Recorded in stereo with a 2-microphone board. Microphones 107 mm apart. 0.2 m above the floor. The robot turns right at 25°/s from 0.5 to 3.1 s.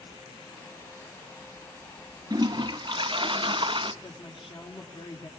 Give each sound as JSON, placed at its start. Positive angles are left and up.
{"t": 2.3, "sound": "a toilet flushing", "side_deg": -40, "distance_m": 0.8}
{"t": 4.0, "sound": "a woman speaking", "side_deg": 50, "distance_m": 4.0}